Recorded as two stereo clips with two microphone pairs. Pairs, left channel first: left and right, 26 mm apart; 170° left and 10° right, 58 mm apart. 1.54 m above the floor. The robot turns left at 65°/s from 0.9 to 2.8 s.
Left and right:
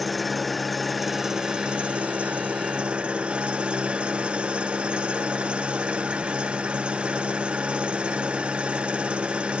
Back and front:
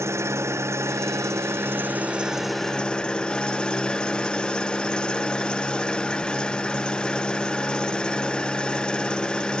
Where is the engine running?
5° left, 0.8 m; by 9.6 s 120° right, 0.8 m.